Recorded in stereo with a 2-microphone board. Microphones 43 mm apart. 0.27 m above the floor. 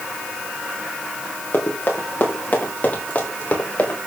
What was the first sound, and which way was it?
Running footsteps, 55° left (ahead or behind).